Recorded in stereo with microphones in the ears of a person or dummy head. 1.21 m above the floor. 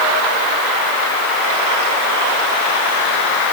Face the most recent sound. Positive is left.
No sound to turn to.